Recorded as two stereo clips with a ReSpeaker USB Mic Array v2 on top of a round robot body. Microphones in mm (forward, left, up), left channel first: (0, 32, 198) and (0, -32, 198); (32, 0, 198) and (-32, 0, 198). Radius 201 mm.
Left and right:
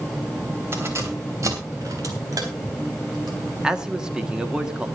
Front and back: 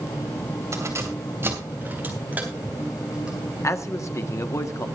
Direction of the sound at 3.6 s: 15° right.